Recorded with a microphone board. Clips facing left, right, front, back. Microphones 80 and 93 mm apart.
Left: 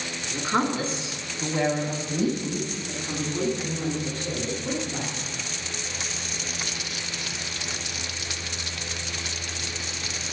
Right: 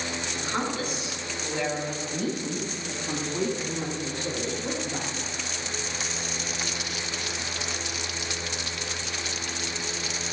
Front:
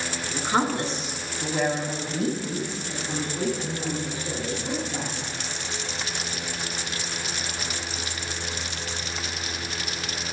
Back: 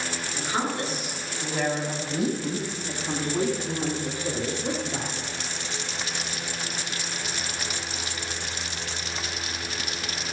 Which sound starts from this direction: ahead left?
A woman speaking, at 0.3 s.